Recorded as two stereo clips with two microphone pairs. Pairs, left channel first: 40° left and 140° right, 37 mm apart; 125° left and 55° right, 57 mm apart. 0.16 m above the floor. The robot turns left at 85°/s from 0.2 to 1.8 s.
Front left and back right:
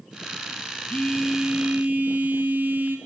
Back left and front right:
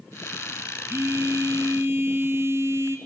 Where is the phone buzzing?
20° right, 0.7 m; by 3.0 s 95° right, 0.7 m.